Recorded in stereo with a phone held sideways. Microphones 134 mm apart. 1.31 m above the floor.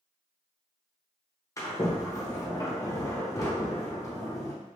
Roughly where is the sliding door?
Left.